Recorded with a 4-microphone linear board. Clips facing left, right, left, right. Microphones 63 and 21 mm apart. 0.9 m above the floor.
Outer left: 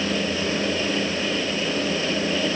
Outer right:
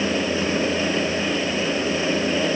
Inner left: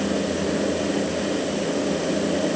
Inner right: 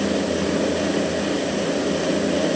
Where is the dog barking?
No dog barking in this recording.